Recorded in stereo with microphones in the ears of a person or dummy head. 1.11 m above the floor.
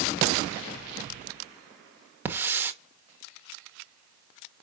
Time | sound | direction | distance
2.2 | a hiss | 10° right (ahead or behind) | 1.1 m